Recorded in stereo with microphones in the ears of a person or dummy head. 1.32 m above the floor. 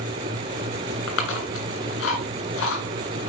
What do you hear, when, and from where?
1.1 s chewing: 70° left (ahead or behind), 2.5 m